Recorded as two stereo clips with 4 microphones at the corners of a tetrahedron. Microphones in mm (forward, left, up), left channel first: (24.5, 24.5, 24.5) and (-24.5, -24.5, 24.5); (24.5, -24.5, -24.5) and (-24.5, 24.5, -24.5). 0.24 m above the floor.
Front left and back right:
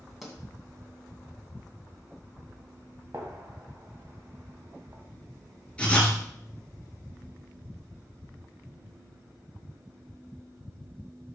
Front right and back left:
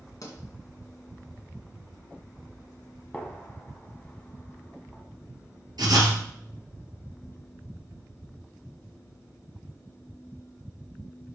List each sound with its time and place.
0.2 s a pop: 50° right, 2 m
3.1 s a gunshot: 110° right, 1.7 m
5.8 s writing: 115° left, 2.5 m